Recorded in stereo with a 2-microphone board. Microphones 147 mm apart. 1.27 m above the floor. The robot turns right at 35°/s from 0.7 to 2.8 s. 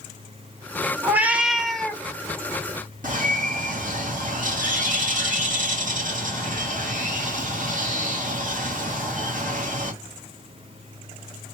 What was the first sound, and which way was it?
A cat meowing, 25° right.